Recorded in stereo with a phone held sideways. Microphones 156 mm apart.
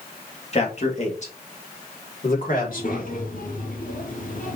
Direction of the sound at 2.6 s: 60° left (ahead or behind).